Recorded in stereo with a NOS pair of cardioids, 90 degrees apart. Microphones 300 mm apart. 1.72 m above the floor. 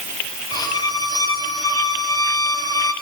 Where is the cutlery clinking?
No cutlery clinking in this recording.